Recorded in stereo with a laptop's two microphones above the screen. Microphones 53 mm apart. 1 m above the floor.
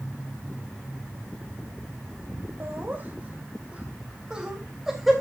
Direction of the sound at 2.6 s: 45° right (ahead or behind).